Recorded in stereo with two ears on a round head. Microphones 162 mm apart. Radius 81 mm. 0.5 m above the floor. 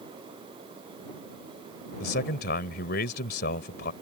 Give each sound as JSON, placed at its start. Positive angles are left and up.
{"t": 2.0, "sound": "a man speaking", "side_deg": 60}